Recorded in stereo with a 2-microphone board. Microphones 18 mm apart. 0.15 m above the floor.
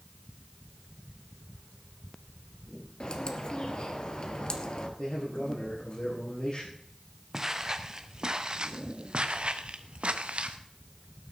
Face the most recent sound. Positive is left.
turn(degrees=-75)  # may be behind; listen again after turning